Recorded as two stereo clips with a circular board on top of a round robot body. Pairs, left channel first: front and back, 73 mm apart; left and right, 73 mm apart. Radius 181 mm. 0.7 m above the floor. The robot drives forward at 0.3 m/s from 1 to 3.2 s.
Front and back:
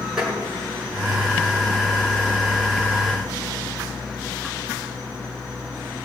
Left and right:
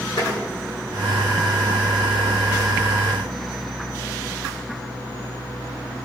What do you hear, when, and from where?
0.2 s tapping: 95° left, 5.5 m